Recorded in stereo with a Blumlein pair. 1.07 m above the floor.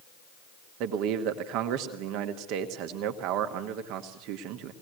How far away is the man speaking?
About 2.0 m.